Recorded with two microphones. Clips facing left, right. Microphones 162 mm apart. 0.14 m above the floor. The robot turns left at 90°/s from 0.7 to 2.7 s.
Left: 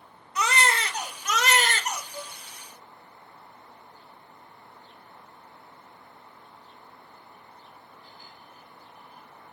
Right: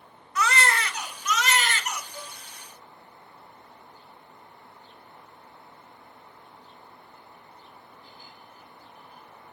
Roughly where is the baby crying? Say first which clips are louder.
Even; behind left.